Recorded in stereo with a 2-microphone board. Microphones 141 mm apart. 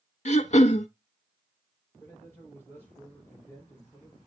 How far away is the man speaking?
About 4 m.